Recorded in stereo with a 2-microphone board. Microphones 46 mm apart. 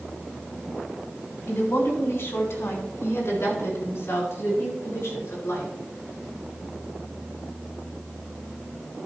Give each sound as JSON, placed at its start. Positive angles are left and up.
{"t": 1.5, "sound": "a woman speaking", "side_deg": 60, "distance_m": 3.0}